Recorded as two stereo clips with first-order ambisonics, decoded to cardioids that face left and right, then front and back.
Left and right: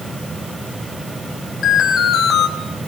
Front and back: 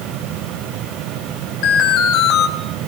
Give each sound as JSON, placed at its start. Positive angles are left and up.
{"t": 1.6, "sound": "an alarm", "azimuth_deg": 30, "distance_m": 5.5}